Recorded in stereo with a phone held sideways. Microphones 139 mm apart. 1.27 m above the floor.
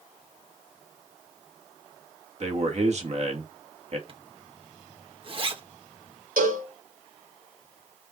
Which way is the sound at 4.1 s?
40° right (ahead or behind).